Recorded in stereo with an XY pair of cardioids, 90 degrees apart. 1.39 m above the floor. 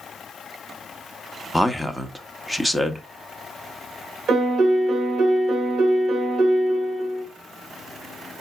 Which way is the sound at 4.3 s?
65° right.